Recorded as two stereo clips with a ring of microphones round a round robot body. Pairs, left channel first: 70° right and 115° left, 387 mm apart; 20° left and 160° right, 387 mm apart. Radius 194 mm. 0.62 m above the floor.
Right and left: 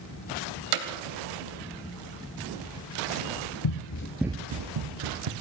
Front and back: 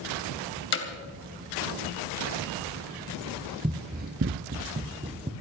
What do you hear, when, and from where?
0.7 s hammering: 85° left, 2.5 m
3.6 s running footsteps: 80° right, 1.0 m; by 5.3 s 125° left, 1.7 m